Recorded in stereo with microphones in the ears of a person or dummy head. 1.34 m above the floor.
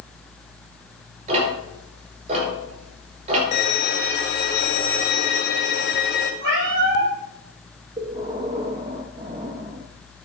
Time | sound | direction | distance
1.3 | ticking | 35° right (ahead or behind) | 5 m
3.5 | a violin | 60° left (ahead or behind) | 2.5 m
6.4 | a cat meowing | 65° right (ahead or behind) | 7.5 m
8.0 | breathing | 30° right (ahead or behind) | 1.5 m